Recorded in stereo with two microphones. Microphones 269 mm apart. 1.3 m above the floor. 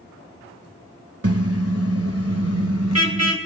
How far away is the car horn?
About 3 m.